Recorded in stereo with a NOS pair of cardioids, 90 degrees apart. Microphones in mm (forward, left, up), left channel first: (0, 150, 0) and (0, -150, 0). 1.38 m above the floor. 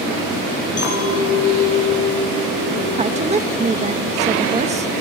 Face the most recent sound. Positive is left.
turn(degrees=-20)